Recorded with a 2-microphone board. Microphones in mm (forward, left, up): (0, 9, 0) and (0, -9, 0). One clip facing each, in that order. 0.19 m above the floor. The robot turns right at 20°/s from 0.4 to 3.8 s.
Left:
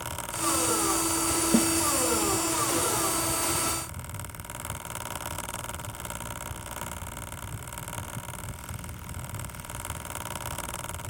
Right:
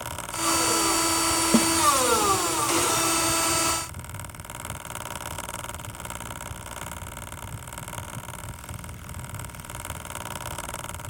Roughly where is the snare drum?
Right.